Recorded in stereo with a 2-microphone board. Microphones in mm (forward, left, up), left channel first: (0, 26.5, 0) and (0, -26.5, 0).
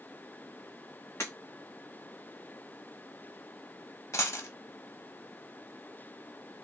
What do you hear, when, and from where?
1.2 s breaking glass: 65° left (ahead or behind), 1.8 m
4.1 s a dropped coin: 70° left (ahead or behind), 0.7 m